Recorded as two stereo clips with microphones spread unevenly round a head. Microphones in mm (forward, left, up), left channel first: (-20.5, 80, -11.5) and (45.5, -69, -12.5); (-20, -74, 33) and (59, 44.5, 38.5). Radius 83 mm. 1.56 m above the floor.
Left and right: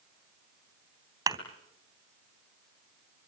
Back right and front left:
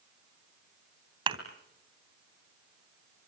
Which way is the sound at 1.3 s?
5° left.